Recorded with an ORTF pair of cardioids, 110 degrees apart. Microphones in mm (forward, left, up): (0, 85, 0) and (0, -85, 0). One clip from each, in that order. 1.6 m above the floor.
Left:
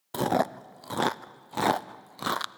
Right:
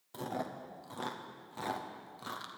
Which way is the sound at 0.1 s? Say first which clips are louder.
Left 13 dB; 65° left.